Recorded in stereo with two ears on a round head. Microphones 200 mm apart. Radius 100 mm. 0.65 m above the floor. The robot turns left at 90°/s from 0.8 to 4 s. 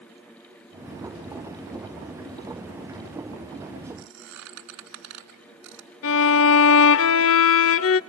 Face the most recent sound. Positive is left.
turn(degrees=65)  # may be behind; listen again after turning